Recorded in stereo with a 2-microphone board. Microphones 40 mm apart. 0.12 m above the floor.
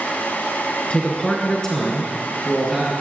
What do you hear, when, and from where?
0.9 s a man speaking: 25° left (ahead or behind), 1.3 m; by 2.9 s 5° left (ahead or behind), 2.5 m